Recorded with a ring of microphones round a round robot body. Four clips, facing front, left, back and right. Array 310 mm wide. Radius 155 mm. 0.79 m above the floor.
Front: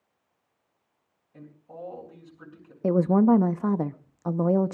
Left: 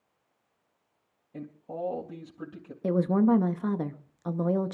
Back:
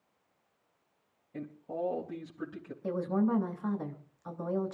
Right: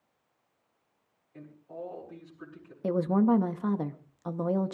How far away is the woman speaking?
About 0.9 m.